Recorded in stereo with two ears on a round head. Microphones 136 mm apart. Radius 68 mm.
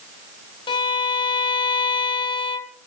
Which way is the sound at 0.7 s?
30° left (ahead or behind).